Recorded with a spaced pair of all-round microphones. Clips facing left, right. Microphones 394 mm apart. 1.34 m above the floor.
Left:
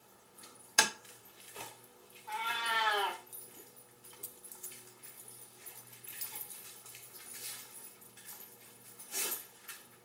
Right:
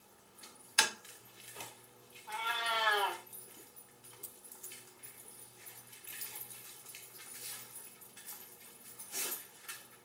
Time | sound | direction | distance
0.8 | tapping | 65° left (ahead or behind) | 0.5 m
2.3 | a cat meowing | 35° left (ahead or behind) | 1.0 m